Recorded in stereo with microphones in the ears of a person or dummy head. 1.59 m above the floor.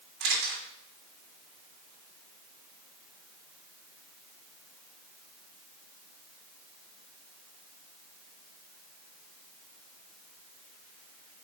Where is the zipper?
No zipper in this recording.